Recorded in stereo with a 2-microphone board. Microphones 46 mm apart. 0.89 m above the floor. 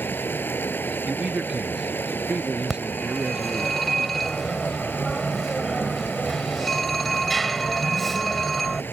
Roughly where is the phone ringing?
Centre.